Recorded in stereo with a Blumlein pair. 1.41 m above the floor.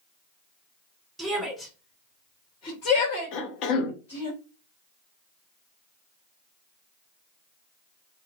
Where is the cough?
40° left, 0.7 m.